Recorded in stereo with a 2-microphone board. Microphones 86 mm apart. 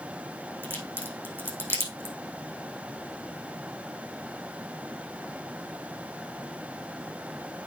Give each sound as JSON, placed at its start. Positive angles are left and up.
{"t": 0.6, "sound": "a crack", "side_deg": -25, "distance_m": 4.5}